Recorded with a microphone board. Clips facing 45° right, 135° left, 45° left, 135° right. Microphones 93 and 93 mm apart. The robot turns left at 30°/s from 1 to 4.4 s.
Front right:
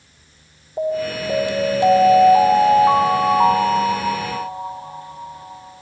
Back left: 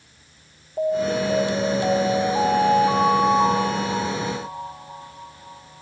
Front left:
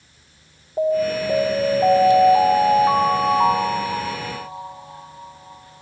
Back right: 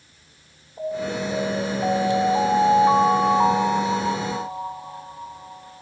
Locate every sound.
0.8 s an alarm: 25° left, 1.9 m; by 5.8 s 80° right, 1.9 m